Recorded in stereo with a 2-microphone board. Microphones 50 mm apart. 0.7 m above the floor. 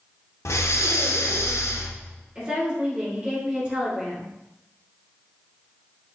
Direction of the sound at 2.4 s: 25° right (ahead or behind).